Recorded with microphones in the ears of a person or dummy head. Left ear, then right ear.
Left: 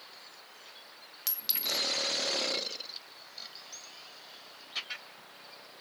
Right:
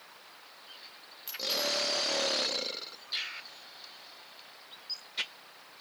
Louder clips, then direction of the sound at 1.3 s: Right 3 dB; 85° left.